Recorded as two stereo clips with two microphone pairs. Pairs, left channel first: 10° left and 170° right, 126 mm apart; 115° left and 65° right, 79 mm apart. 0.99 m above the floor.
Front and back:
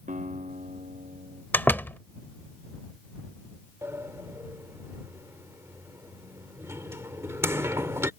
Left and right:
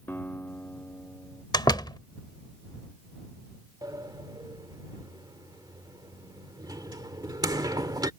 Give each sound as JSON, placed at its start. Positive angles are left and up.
{"t": 0.1, "sound": "a guitar", "azimuth_deg": 175}
{"t": 1.5, "sound": "a door slam", "azimuth_deg": 85}
{"t": 3.8, "sound": "a sliding door", "azimuth_deg": -105}